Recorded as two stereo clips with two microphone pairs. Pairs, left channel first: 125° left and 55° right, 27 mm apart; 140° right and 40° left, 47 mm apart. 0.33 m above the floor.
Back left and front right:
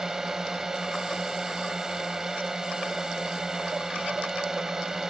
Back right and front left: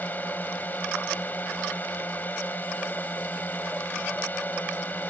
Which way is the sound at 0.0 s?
115° right.